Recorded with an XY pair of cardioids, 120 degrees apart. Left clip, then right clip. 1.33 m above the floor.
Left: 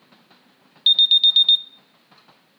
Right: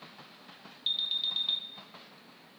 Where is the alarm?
65° left, 0.5 m.